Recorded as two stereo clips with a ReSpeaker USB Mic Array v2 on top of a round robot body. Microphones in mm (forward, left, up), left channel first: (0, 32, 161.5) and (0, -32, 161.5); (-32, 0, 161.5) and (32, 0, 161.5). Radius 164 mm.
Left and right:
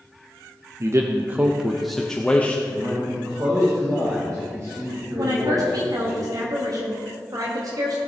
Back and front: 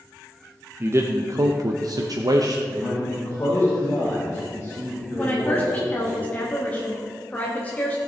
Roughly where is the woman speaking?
Behind right.